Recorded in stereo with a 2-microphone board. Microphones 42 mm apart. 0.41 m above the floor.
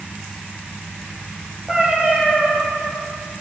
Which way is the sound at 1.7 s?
20° right (ahead or behind).